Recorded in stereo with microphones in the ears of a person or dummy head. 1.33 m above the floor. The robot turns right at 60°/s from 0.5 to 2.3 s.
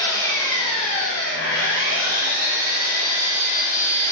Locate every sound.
0.0 s an engine running: 20° left, 0.9 m; by 4.1 s 130° left, 0.9 m